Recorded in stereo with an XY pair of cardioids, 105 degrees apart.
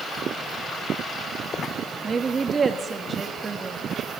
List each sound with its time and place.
2.0 s a woman speaking: 30° right, 3 m